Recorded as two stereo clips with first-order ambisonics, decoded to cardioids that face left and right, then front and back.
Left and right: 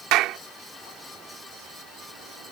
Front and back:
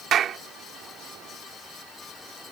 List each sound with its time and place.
0.1 s a clap: 125° right